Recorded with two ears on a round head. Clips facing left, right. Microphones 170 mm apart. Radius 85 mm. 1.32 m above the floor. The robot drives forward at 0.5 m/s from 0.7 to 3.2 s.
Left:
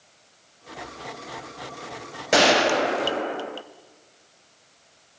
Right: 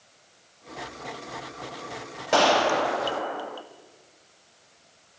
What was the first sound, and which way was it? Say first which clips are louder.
A gunshot: left 2 dB; 20° left (ahead or behind).